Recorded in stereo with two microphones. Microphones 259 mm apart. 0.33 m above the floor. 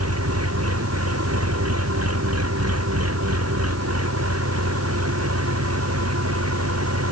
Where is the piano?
I don't hear a piano.